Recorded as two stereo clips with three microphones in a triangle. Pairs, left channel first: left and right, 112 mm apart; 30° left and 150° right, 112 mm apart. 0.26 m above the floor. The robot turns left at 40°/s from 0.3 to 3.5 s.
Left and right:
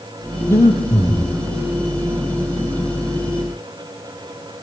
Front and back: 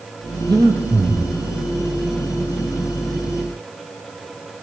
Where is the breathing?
155° left, 5 m; by 1.3 s 125° left, 5 m.